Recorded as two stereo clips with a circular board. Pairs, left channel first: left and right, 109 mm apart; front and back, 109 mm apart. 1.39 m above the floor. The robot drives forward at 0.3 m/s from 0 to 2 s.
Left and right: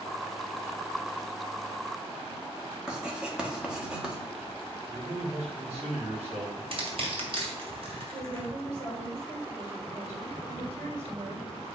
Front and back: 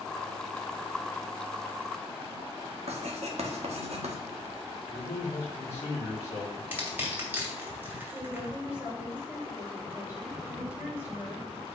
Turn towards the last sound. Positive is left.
turn(degrees=-105)